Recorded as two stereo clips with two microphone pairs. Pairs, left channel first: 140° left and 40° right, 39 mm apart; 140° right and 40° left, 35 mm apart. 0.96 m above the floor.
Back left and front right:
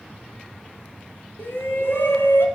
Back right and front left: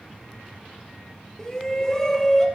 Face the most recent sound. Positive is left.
turn(degrees=140)